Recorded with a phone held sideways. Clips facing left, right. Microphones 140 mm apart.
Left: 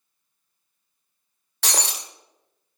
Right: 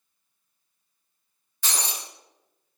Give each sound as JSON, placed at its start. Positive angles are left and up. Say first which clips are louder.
{"t": 1.6, "sound": "breaking glass", "louder": "left 4 dB", "side_deg": 75, "distance_m": 1.5}